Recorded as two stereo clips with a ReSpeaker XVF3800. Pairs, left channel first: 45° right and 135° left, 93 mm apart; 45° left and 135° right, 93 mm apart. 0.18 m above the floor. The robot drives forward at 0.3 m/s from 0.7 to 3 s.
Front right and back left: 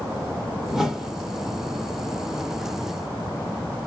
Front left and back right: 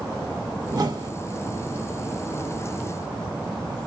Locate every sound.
0.7 s a whoosh: 140° right, 1.4 m; by 1.1 s 145° right, 1.5 m